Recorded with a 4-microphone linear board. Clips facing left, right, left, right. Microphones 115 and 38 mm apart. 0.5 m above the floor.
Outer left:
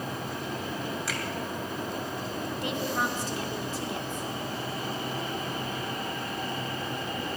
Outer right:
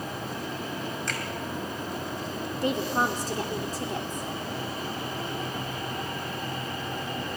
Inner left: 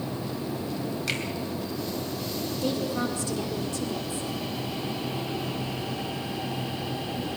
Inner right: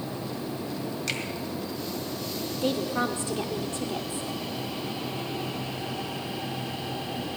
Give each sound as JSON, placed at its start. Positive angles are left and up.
{"t": 1.1, "sound": "a finger snap", "side_deg": 5, "distance_m": 2.5}
{"t": 2.6, "sound": "a woman speaking", "side_deg": -40, "distance_m": 1.0}